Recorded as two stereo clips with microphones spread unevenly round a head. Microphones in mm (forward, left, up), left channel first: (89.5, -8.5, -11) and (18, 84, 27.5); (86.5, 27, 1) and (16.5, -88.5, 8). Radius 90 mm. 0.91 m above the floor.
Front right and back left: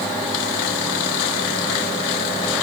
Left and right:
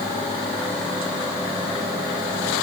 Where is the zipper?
I don't hear a zipper.